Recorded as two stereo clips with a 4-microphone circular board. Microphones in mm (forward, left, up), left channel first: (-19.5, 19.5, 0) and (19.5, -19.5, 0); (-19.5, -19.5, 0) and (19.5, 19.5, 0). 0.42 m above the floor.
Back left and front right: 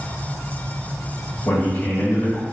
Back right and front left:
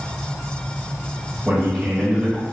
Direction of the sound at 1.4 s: 120° left.